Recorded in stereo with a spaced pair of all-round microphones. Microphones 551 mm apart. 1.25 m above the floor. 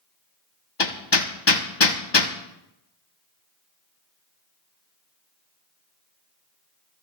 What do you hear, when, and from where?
0.8 s hammering: 45° left (ahead or behind), 1.1 m